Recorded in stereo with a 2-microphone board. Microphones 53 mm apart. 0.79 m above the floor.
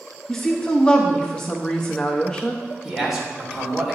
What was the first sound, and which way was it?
A woman speaking, 20° left (ahead or behind).